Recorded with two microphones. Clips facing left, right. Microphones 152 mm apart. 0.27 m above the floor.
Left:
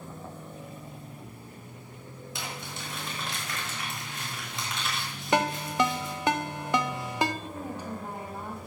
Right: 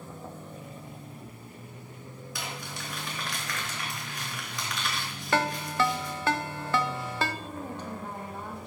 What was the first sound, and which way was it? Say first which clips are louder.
Crumpling: even; 25° left (ahead or behind).